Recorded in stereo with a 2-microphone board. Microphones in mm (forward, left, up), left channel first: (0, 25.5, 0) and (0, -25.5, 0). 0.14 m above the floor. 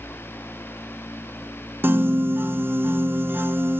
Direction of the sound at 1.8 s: 45° right (ahead or behind).